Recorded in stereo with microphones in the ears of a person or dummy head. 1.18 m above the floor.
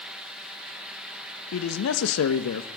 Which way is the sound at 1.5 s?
70° left (ahead or behind).